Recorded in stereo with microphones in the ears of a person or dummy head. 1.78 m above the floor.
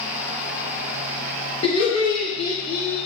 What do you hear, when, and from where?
1.6 s laughter: 30° left (ahead or behind), 0.6 m